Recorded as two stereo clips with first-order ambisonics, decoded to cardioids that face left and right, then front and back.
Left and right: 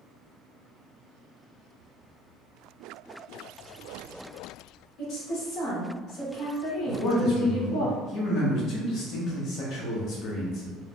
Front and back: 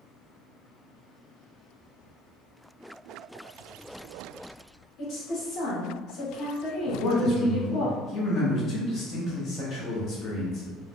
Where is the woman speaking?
55° left, 1.3 m.